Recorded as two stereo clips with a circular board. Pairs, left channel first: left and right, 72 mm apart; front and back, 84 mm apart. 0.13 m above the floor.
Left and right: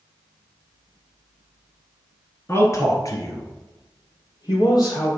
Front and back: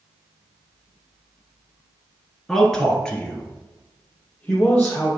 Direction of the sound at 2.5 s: 85° left.